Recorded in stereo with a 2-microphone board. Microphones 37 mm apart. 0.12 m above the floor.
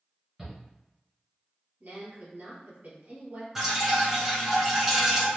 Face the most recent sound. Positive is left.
turn(degrees=-10)  # may be behind; listen again after turning